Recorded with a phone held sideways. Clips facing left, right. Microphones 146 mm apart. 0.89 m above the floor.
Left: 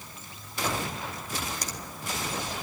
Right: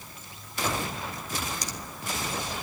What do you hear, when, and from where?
1.6 s a finger snap: 50° left (ahead or behind), 2.5 m